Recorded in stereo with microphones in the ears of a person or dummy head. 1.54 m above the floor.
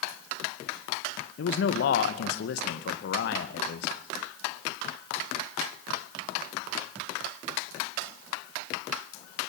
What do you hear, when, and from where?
1.4 s a man speaking: 60° left (ahead or behind), 2 m